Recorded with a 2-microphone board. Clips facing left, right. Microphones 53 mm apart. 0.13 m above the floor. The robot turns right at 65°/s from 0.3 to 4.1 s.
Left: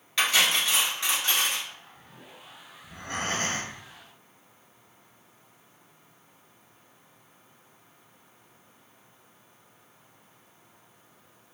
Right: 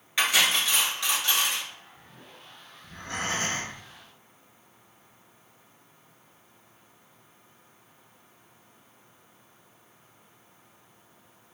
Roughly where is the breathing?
Ahead.